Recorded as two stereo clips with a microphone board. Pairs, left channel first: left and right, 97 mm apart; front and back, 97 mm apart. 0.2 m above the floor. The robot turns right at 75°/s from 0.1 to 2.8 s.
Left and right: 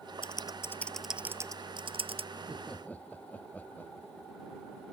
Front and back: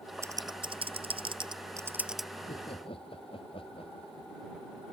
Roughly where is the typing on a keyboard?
Behind left.